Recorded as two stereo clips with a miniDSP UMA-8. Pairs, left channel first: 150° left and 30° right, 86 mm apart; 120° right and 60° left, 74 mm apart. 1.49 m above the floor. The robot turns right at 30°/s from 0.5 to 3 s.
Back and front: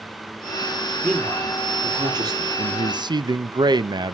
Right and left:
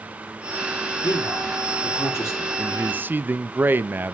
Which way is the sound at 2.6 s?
15° right.